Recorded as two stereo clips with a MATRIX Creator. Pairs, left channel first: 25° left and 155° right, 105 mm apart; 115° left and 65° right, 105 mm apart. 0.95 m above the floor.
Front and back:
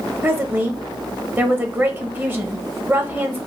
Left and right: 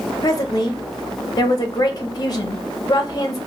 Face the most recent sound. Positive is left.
turn(degrees=140)